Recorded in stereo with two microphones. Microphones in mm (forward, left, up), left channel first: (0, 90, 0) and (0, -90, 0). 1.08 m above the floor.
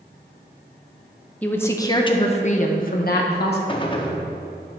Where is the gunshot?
30° left (ahead or behind), 0.8 m.